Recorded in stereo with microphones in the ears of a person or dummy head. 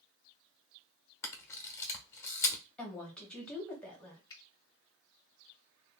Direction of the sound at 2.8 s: 10° left (ahead or behind).